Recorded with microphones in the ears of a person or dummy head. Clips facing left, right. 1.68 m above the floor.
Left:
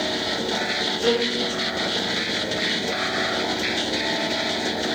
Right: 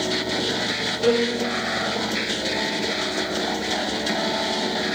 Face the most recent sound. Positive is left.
turn(degrees=-35)  # may be behind; listen again after turning